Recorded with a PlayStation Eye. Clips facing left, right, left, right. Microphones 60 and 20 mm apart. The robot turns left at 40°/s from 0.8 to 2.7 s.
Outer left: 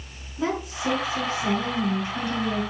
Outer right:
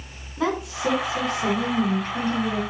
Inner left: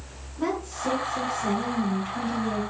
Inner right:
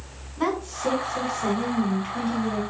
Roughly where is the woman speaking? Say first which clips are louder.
Outer right 2 dB, inner right 2 dB; right.